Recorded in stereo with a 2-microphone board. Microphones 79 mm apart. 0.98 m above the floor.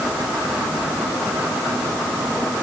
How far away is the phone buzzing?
I don't hear a phone buzzing.